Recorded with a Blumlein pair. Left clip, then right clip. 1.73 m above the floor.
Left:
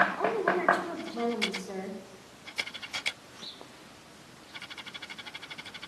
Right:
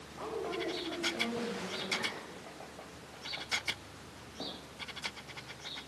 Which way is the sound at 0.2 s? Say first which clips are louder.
Left 10 dB; 30° left.